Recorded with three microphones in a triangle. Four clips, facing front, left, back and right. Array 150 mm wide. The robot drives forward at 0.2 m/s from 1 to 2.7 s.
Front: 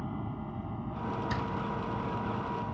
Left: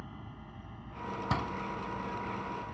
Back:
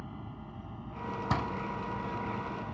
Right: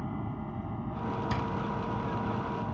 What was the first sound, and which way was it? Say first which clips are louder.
An aircraft: right 11 dB, front 7 dB; 55° right.